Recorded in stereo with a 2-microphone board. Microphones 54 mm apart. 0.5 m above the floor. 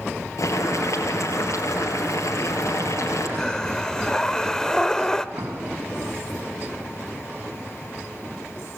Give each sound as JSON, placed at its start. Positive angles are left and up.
{"t": 0.4, "sound": "boiling", "side_deg": 75, "distance_m": 5.5}
{"t": 3.4, "sound": "breathing", "side_deg": 10, "distance_m": 0.8}
{"t": 5.3, "sound": "an explosion", "side_deg": -70, "distance_m": 3.5}